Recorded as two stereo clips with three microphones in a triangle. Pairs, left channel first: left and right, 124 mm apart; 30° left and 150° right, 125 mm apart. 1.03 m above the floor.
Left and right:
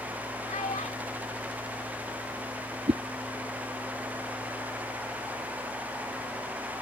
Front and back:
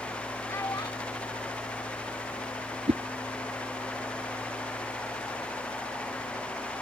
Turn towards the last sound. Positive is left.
turn(degrees=-120)